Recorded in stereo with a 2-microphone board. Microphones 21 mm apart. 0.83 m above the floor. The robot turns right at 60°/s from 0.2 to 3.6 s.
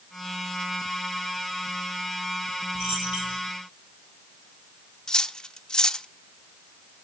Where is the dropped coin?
40° right (ahead or behind), 8.5 m; by 3.4 s 75° right (ahead or behind), 8.5 m.